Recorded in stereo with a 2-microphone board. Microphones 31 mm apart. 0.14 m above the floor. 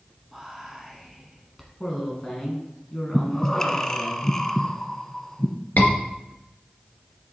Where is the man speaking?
20° left (ahead or behind), 1.7 m.